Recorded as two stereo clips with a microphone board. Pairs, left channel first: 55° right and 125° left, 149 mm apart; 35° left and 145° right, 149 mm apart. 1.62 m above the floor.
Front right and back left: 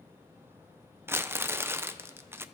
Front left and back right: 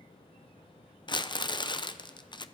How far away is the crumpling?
About 0.6 m.